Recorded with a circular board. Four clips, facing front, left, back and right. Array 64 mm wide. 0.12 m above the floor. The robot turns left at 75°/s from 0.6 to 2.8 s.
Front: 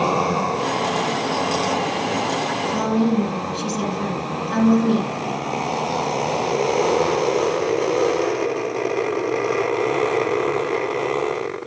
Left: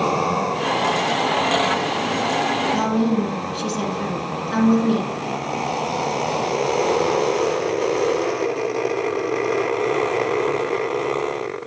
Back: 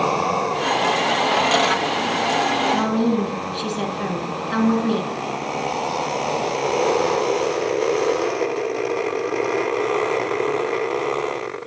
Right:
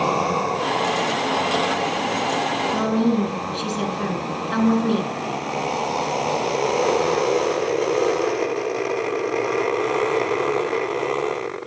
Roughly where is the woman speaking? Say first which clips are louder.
Right 2 dB, even; behind right.